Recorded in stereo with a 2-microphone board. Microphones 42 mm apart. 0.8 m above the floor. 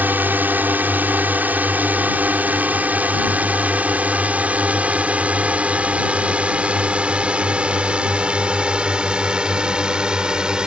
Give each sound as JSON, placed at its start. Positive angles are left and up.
{"t": 0.0, "sound": "a drone", "side_deg": -50}